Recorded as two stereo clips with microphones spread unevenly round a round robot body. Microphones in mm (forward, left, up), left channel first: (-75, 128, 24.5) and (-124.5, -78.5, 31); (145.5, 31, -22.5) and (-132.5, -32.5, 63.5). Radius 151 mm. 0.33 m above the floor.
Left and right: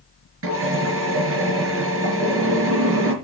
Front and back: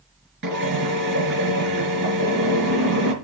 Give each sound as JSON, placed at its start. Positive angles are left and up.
{"t": 0.4, "sound": "a drill", "azimuth_deg": -110, "distance_m": 4.5}